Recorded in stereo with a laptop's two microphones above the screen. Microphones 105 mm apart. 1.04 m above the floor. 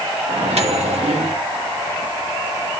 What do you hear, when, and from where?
0.3 s a microwave: 85° right, 1.9 m